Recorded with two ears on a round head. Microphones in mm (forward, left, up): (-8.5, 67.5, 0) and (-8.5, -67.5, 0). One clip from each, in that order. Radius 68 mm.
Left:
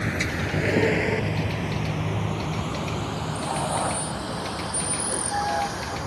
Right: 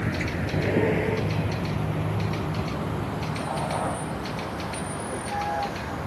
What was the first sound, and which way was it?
A vehicle, 80° left.